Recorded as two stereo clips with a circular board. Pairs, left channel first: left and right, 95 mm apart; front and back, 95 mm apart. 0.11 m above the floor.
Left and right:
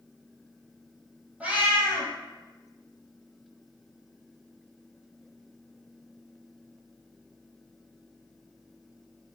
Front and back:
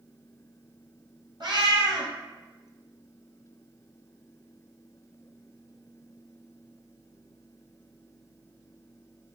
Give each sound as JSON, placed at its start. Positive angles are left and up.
{"t": 1.4, "sound": "a cat meowing", "azimuth_deg": -160, "distance_m": 1.0}